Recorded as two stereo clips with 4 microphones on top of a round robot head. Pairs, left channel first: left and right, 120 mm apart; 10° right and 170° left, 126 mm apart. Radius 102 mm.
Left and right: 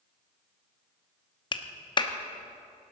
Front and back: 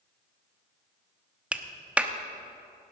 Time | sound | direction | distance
1.5 | a clap | 95° left | 1.0 m